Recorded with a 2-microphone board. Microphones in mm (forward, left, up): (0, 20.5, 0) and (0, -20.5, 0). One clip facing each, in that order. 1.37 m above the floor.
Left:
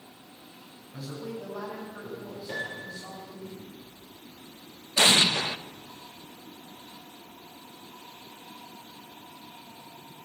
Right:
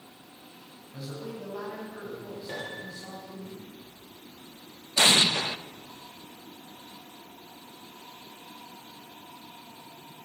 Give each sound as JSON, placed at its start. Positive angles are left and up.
{"t": 0.9, "sound": "a man speaking", "side_deg": 0, "distance_m": 9.5}
{"t": 2.5, "sound": "a piano", "side_deg": -5, "distance_m": 7.5}
{"t": 5.0, "sound": "an explosion", "side_deg": 25, "distance_m": 0.8}